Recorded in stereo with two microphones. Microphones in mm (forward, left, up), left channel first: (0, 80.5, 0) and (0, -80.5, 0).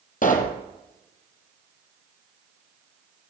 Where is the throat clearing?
No throat clearing in this recording.